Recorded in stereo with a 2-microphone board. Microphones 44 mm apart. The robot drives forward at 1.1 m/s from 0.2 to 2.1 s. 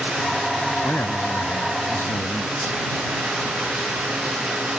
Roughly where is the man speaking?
Left.